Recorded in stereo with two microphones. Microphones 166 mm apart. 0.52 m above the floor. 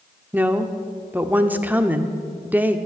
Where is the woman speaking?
10° right (ahead or behind), 1.0 m.